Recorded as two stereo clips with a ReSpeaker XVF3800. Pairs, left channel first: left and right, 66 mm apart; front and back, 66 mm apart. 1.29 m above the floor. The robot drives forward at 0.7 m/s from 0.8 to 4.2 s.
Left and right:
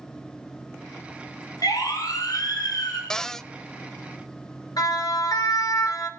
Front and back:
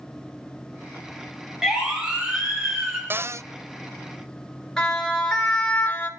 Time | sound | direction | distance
1.6 | a siren | 100° left | 9 m
3.1 | a cupboard door | 160° left | 0.5 m
4.8 | a siren | 80° left | 4.5 m